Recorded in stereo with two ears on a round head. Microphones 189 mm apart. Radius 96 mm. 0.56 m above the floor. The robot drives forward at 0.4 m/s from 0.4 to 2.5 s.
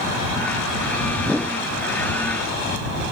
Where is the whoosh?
5° right (ahead or behind).